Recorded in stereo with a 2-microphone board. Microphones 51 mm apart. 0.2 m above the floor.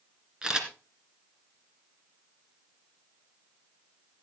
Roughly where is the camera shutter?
Centre.